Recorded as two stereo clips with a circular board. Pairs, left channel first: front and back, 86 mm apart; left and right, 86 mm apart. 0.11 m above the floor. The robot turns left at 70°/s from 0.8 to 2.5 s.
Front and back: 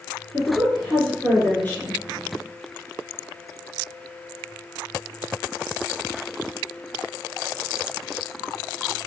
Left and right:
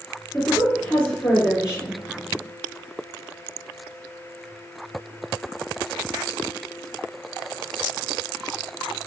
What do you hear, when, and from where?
0.3 s a woman speaking: 40° left, 1.2 m; by 2.0 s 45° right, 1.2 m